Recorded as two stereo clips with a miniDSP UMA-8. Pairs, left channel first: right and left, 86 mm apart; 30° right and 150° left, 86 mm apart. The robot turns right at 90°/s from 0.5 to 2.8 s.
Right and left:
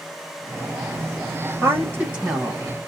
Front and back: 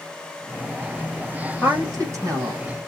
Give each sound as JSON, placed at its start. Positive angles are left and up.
{"t": 1.6, "sound": "a woman speaking", "azimuth_deg": 95, "distance_m": 1.3}